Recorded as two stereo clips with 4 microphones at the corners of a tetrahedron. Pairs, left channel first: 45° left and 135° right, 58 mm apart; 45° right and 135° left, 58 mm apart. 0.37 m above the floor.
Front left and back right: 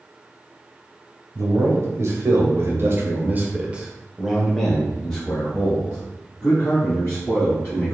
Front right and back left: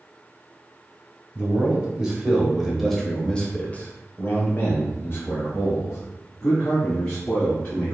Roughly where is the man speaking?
Behind.